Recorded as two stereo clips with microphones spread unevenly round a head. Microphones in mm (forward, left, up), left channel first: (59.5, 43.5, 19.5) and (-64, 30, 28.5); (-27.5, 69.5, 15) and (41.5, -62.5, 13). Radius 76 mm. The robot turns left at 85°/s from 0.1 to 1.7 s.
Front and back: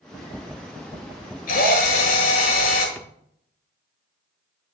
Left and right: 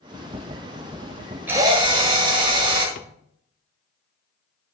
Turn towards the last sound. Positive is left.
turn(degrees=80)